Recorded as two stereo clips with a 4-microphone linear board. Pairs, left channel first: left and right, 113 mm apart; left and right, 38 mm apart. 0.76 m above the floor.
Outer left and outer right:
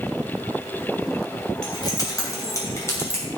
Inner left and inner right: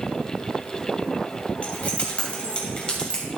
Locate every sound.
1.6 s keys jangling: 35° left (ahead or behind), 3 m; by 3.2 s 20° left (ahead or behind), 2.5 m